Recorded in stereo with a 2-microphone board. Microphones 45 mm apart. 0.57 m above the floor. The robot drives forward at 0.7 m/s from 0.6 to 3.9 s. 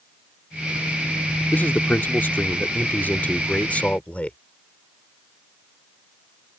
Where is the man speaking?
50° left (ahead or behind); by 4.4 s 35° left (ahead or behind).